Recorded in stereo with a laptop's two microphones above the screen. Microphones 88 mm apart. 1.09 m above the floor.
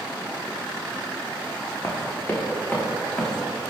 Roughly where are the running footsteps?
Left.